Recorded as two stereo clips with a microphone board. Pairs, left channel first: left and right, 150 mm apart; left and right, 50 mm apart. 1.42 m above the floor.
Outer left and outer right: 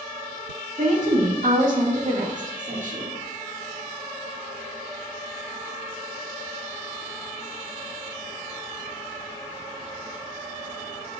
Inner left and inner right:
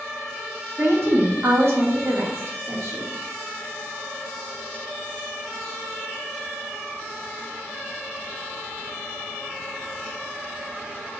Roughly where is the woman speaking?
Right.